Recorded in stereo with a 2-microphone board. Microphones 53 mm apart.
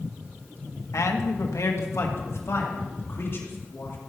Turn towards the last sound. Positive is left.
turn(degrees=55)  # may be behind; listen again after turning